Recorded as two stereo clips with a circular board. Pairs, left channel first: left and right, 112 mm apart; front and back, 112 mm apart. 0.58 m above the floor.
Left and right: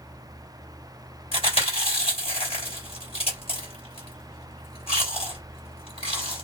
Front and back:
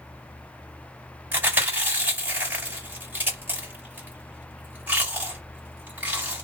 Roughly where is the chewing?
Left.